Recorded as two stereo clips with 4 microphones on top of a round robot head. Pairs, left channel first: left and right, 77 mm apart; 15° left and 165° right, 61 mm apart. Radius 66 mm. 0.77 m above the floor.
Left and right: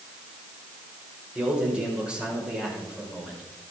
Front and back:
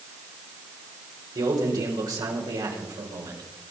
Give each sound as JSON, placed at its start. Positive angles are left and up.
{"t": 1.4, "sound": "a man speaking", "azimuth_deg": -170, "distance_m": 4.5}